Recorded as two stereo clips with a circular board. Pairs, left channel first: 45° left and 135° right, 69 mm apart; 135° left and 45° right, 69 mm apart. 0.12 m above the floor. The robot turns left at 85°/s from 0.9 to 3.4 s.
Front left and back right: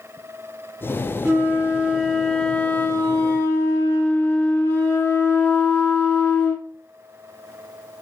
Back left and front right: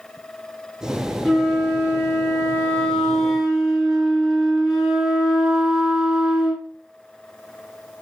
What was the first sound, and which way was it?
A flute, 145° right.